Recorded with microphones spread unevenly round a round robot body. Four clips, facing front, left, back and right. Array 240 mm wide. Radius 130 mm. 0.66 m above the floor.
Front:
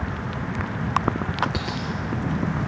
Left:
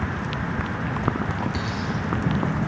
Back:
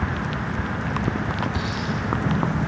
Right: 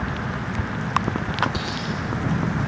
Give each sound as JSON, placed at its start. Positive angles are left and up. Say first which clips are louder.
{"t": 1.5, "sound": "a dropped coin", "louder": "even, back 2 dB", "azimuth_deg": -15, "distance_m": 2.0}